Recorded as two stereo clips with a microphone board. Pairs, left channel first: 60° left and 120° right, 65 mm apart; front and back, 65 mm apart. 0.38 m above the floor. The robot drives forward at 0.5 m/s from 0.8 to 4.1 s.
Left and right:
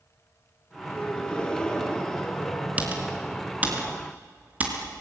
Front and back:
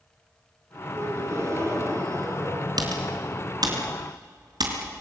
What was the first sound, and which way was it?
A gasp, 135° left.